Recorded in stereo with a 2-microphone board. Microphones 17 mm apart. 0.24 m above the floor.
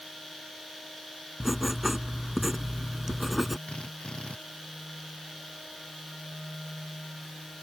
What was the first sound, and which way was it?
Writing, 10° right (ahead or behind).